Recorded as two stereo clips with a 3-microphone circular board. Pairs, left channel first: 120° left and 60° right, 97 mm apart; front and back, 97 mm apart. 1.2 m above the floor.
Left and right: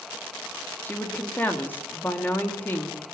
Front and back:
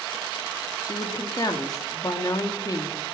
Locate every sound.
0.8 s a woman speaking: 50° left, 2 m